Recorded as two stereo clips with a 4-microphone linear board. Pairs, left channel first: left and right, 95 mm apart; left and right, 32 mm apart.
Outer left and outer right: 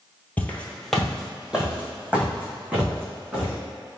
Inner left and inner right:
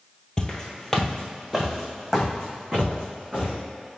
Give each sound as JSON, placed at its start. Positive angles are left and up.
{"t": 0.4, "sound": "footsteps", "side_deg": 20, "distance_m": 0.7}